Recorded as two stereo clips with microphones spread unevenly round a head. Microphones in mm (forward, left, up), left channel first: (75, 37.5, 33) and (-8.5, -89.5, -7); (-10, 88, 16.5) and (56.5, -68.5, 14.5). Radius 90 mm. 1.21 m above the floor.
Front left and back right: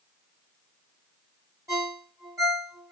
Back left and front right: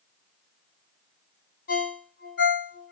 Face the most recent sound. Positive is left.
turn(degrees=155)